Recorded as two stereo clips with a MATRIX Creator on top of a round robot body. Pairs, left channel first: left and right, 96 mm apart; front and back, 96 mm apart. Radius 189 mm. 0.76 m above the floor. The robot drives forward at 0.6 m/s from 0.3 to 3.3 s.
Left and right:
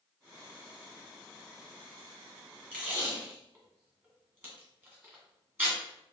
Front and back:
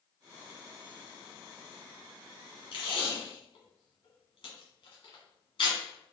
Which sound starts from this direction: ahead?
Tape being pulled, at 2.7 s.